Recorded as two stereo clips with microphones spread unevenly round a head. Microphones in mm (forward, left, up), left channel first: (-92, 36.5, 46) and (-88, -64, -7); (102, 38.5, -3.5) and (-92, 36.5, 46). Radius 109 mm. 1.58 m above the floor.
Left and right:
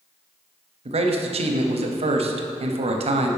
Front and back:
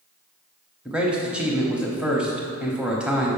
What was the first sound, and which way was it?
A man speaking, 95° right.